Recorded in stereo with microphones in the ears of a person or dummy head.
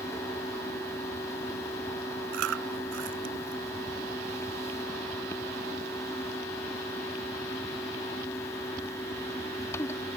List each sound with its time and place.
0.0 s a fan: 15° left (ahead or behind)
2.3 s chewing: 65° right (ahead or behind)